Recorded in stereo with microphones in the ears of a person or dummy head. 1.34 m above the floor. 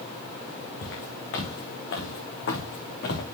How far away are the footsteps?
About 4.5 m.